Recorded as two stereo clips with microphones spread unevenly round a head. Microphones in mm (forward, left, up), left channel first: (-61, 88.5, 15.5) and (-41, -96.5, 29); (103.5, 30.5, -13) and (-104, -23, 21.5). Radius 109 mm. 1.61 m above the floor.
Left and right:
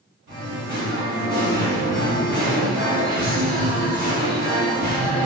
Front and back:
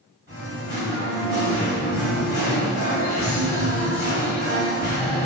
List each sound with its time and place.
0.3 s singing: 90° right, 1.8 m